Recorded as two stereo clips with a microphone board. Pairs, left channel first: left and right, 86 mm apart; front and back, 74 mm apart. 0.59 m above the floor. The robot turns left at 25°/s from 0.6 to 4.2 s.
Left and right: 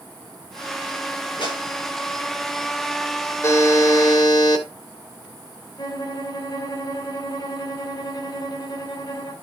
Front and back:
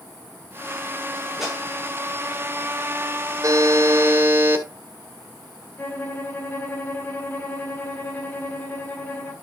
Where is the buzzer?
145° left, 2.0 m; by 4.7 s 125° left, 2.0 m.